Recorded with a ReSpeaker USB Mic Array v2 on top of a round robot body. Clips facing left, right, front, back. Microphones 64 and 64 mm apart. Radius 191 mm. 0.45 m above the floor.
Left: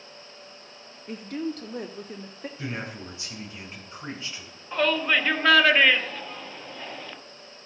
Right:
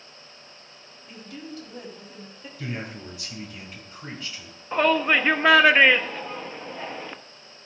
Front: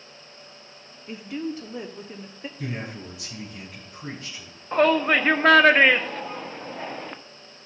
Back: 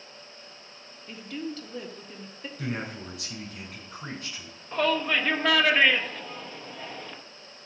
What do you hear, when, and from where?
1.1 s a woman speaking: 65° left, 1.0 m
2.6 s a man speaking: 150° left, 4.5 m
4.7 s a shout: 30° right, 1.1 m